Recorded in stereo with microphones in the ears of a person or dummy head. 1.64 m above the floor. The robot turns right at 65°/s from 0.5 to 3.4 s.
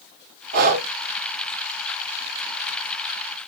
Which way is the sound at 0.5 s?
60° right (ahead or behind).